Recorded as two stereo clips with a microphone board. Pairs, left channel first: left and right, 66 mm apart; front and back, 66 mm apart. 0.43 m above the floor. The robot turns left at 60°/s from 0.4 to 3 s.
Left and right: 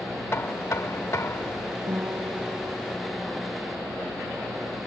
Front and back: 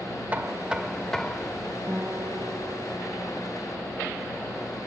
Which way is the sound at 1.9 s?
120° right.